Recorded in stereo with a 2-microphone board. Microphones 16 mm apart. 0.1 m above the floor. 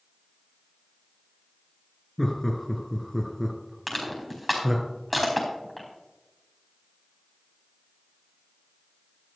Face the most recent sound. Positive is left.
turn(degrees=0)  # may be behind; listen again after turning